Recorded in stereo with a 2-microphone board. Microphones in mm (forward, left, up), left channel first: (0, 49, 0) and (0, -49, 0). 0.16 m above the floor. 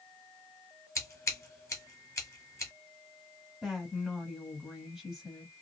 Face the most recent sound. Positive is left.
turn(degrees=-5)  # may be behind; listen again after turning